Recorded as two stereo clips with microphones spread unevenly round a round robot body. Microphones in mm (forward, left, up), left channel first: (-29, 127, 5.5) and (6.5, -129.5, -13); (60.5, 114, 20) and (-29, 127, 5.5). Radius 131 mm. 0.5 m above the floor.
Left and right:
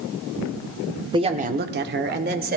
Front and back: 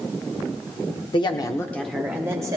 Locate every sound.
1.1 s a woman speaking: 20° right, 1.1 m; by 2.6 s 135° right, 1.8 m